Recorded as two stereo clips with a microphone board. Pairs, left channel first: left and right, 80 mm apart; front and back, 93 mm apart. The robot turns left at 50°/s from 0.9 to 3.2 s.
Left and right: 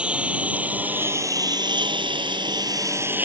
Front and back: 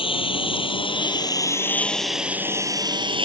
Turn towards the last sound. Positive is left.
turn(degrees=-155)